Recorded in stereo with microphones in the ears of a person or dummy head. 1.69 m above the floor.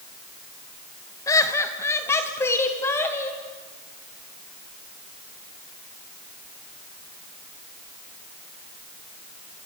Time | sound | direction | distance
1.3 | laughter | 15° left (ahead or behind) | 2 m